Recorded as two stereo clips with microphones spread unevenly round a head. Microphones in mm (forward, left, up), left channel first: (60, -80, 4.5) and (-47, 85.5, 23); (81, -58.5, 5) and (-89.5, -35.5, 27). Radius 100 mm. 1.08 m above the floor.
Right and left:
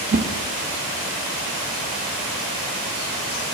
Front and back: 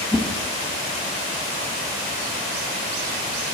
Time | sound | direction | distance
0.1 | a whoosh | 80° left | 0.5 m